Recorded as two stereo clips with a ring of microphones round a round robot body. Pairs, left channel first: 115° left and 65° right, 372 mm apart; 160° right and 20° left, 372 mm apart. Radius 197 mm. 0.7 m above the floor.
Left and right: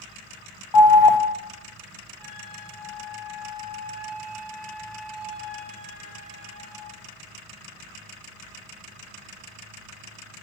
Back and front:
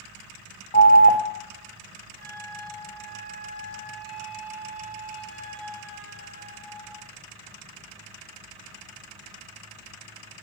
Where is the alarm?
135° left, 0.5 m.